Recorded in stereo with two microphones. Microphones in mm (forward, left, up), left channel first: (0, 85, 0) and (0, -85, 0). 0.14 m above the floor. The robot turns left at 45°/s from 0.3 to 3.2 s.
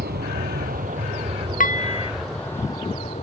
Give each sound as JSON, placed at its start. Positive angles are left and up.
{"t": 0.0, "sound": "an aircraft", "side_deg": -65}
{"t": 1.6, "sound": "dishes clattering", "side_deg": 55}